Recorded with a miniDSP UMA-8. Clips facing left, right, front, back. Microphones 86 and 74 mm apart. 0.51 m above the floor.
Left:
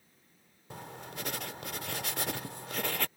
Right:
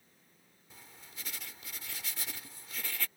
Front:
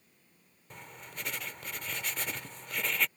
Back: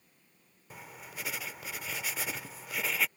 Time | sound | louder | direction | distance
0.7 | writing | left 13 dB, back 1 dB | 95° left | ?